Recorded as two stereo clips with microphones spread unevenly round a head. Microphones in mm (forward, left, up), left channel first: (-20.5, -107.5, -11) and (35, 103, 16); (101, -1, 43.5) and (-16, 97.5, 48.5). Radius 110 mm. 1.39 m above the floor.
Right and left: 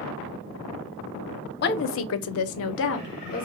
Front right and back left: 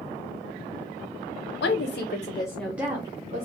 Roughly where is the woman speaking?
Ahead right.